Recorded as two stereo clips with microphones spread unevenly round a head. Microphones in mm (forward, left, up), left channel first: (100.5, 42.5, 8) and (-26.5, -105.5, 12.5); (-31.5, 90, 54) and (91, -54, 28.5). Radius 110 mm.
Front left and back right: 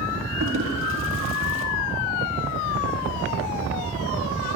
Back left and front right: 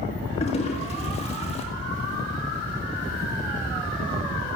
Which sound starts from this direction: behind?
A toilet flushing, at 0.4 s.